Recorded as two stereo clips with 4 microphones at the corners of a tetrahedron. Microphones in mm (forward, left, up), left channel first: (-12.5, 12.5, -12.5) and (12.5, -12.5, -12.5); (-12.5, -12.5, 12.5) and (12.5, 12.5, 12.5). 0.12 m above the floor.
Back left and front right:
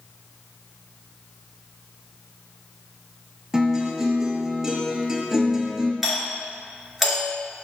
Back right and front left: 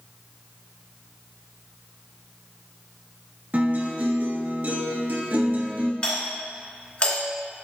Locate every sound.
3.5 s a guitar: 25° left, 1.0 m
6.0 s a doorbell: 135° right, 2 m